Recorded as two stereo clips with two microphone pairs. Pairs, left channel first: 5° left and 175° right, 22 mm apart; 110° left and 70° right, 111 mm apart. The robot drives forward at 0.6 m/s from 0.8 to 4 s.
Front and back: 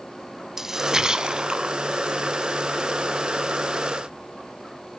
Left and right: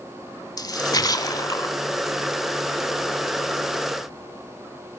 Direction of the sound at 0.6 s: 130° left.